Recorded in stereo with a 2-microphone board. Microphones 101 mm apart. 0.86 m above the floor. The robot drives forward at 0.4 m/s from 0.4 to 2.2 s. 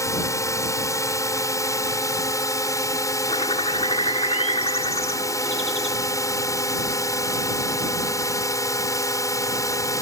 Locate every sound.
0.0 s a drone: 30° left (ahead or behind); by 10.0 s 35° left (ahead or behind)
3.3 s a bird: 80° left